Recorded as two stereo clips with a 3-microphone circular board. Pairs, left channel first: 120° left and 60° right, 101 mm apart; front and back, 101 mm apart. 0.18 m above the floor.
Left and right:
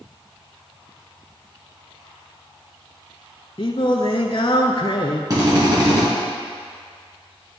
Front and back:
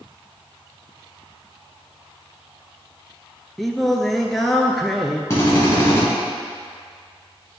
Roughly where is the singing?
Left.